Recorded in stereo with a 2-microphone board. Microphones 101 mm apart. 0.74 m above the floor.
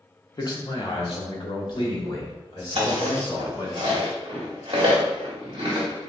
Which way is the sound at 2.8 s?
55° right (ahead or behind).